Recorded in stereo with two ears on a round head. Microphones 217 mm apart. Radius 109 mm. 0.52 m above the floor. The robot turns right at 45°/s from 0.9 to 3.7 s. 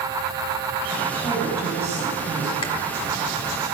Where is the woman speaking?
160° left, 3.5 m; by 2.5 s 135° right, 3.5 m.